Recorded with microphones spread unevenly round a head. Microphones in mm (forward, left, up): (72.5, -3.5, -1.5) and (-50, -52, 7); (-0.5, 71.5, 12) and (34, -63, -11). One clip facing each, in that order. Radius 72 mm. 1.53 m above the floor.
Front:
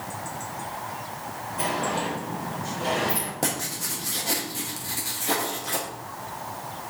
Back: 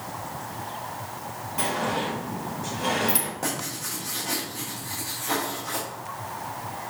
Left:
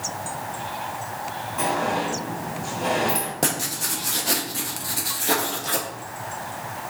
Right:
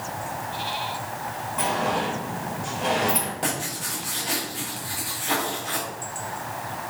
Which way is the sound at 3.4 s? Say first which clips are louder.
Front 1 dB, left 2 dB; 80° left.